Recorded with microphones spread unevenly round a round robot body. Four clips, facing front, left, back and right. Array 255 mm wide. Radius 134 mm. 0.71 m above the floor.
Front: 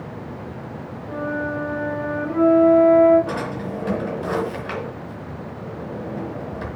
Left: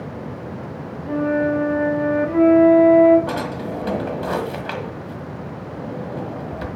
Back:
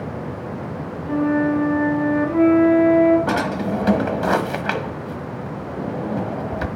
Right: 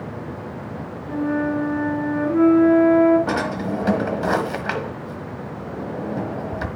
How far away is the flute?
About 6 m.